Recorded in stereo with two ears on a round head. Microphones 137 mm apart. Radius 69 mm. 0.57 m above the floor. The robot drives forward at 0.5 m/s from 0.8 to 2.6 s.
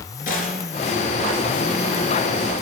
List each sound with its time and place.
0.3 s a gunshot: 60° left (ahead or behind), 2.5 m